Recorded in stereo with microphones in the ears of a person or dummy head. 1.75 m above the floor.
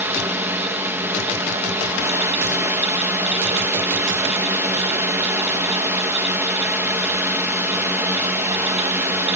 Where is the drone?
20° right (ahead or behind).